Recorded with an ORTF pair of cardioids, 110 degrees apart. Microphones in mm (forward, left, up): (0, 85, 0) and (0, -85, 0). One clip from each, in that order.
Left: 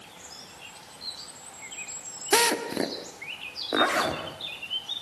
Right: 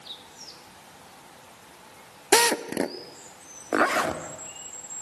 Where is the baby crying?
No baby crying in this recording.